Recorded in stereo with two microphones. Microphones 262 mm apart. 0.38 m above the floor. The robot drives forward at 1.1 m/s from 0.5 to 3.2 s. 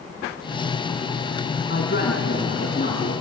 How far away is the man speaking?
About 3.5 m.